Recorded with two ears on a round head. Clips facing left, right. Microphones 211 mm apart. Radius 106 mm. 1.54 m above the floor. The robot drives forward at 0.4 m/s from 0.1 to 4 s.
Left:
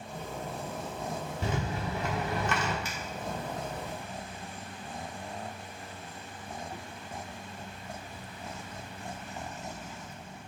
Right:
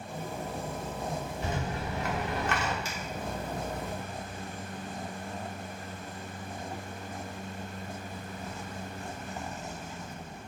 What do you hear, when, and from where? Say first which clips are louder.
1.4 s a rattle: left 3 dB; 60° left (ahead or behind), 1.4 m; by 2.8 s 80° left, 1.2 m
2.9 s a finger snap: right 1 dB; 45° left (ahead or behind), 1.7 m